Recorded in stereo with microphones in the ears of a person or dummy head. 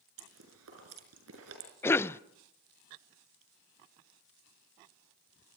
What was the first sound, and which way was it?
Chewing, 85° right.